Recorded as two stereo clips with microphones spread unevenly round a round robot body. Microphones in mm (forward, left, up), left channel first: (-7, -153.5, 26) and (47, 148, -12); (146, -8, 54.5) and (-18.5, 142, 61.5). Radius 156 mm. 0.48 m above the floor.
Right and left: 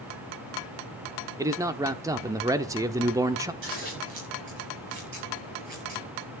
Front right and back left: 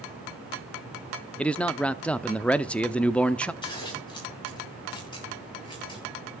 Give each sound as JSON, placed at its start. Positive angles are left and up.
{"t": 1.4, "sound": "a man speaking", "azimuth_deg": 30, "distance_m": 0.7}
{"t": 3.6, "sound": "scissors", "azimuth_deg": 25, "distance_m": 9.0}